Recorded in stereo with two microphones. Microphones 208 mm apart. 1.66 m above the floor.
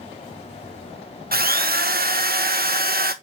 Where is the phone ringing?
No phone ringing in this recording.